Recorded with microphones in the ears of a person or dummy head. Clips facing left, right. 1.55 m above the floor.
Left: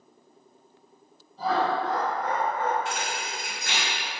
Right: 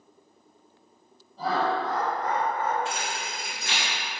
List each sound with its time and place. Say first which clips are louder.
1.4 s laughter: left 1 dB; 65° right (ahead or behind), 1.9 m; by 2.8 s centre (ahead or behind), 0.9 m
2.9 s a thud: left 1 dB; 20° right (ahead or behind), 1.7 m